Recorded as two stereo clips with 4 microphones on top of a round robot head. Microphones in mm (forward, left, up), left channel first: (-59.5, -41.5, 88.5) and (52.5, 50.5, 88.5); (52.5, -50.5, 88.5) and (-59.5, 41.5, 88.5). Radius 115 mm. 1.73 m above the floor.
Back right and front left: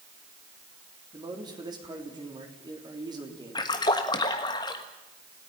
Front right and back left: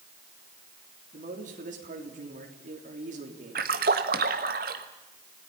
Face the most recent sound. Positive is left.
turn(degrees=160)